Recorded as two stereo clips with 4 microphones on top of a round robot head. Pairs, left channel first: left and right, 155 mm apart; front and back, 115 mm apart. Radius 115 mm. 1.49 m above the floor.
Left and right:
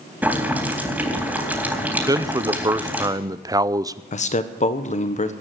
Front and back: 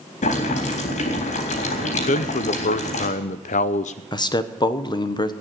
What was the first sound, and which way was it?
Boiling, 10° right.